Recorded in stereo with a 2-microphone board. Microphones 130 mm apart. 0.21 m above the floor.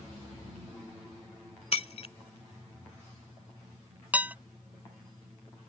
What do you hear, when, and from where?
1.7 s breaking glass: 55° left (ahead or behind)
4.1 s dishes clattering: 15° right (ahead or behind)